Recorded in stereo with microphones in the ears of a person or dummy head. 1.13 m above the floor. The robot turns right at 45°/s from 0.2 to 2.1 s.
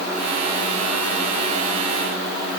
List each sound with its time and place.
Only background noise.